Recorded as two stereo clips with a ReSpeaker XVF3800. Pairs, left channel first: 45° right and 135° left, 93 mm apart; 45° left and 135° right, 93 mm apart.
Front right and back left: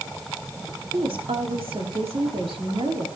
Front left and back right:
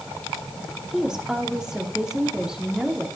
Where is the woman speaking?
145° left, 2.5 m.